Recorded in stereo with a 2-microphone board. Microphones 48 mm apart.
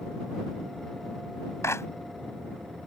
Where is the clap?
75° left (ahead or behind).